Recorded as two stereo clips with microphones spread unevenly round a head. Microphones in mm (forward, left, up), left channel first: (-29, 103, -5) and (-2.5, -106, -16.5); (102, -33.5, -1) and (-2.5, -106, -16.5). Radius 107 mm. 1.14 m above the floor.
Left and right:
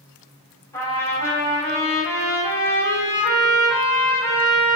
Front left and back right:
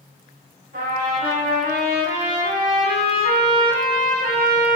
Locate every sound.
0.7 s a trumpet: 175° left, 3 m